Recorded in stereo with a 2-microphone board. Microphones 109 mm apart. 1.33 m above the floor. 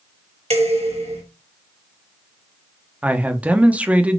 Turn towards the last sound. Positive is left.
turn(degrees=-15)  # may be behind; listen again after turning